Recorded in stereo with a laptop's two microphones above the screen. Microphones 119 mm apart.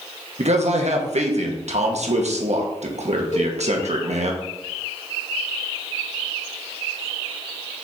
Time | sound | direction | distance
0.4 | a man speaking | 70° right (ahead or behind) | 1.3 m
3.3 | a cowbell | 85° left | 3 m